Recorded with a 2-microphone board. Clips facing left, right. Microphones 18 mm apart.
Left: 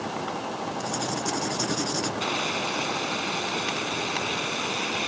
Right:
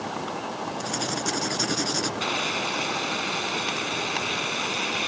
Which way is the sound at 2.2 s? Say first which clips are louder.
Right 1 dB; 10° right (ahead or behind).